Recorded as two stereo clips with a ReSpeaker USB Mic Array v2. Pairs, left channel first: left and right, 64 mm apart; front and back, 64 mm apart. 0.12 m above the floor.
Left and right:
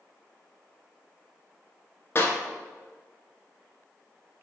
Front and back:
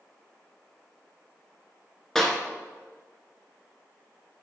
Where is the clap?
80° left, 1.2 m.